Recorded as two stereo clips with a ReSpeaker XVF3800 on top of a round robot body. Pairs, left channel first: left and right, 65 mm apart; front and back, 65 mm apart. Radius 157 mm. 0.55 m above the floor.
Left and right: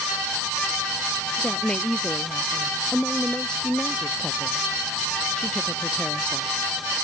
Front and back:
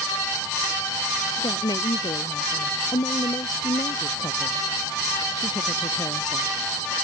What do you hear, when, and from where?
1.4 s a woman speaking: 15° left